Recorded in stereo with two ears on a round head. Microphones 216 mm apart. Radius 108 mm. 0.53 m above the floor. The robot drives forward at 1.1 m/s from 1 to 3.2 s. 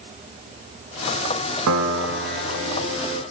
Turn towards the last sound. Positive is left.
turn(degrees=-25)  # may be behind; listen again after turning